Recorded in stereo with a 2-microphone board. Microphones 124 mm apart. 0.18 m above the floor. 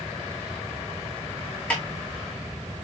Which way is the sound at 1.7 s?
10° left (ahead or behind).